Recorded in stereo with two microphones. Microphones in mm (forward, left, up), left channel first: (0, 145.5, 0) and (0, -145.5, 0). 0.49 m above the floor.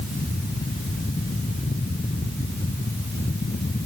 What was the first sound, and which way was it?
Only background noise.